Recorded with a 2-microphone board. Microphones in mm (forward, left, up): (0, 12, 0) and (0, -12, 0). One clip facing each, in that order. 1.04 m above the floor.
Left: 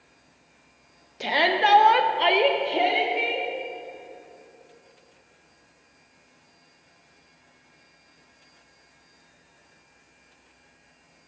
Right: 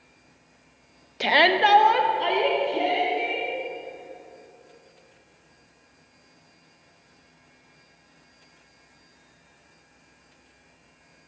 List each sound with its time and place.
1.2 s a shout: 35° right (ahead or behind), 0.9 m; by 3.5 s 65° left (ahead or behind), 1.9 m